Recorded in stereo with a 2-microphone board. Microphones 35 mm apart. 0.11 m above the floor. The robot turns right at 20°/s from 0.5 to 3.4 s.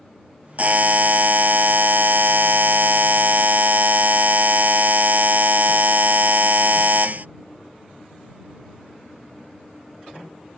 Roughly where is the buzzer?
Behind right.